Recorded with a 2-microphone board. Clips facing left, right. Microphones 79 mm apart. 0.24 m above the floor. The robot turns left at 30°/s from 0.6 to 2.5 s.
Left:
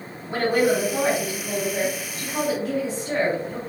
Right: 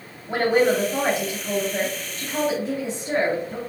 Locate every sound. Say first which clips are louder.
0.3 s a woman speaking: right 1 dB; 60° right, 1.8 m; by 3.6 s 115° right, 1.8 m